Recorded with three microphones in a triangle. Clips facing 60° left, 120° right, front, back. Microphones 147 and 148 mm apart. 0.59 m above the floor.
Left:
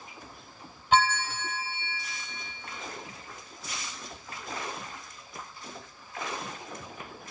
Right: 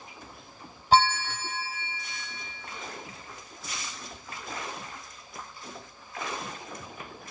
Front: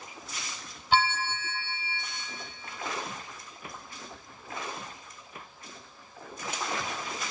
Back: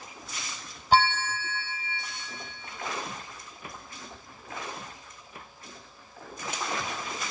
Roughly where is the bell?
Behind right.